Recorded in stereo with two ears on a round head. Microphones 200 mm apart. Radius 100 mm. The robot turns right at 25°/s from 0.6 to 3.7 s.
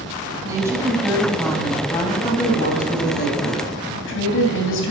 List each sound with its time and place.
0.5 s a woman speaking: 15° right, 3.5 m; by 4.9 s 60° left, 3.5 m